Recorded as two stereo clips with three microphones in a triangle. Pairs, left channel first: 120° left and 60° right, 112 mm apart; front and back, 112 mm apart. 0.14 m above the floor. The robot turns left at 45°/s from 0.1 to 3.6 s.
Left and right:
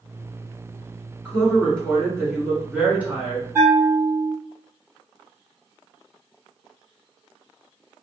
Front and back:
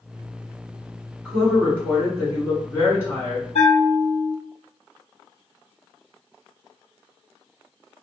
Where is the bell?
10° left, 1.3 m; by 4.4 s 5° left, 1.3 m.